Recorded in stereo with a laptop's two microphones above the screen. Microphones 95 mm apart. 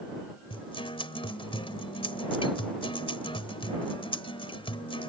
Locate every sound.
0.5 s a guitar: 65° left (ahead or behind)